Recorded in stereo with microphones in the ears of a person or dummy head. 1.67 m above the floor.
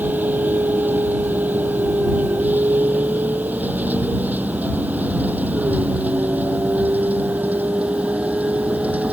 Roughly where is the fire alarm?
No fire alarm in this recording.